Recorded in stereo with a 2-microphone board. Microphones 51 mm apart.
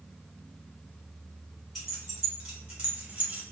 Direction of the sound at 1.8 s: 5° right (ahead or behind).